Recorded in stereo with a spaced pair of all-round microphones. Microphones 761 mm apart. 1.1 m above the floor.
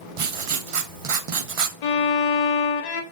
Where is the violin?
65° left (ahead or behind), 0.7 m.